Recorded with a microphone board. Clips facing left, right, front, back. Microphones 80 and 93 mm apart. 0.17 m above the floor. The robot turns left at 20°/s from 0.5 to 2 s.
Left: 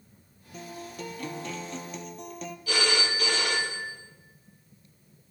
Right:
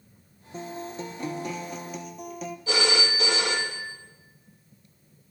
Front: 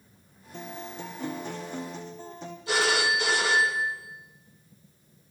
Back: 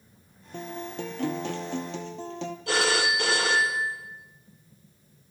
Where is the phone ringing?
155° right, 3.5 m.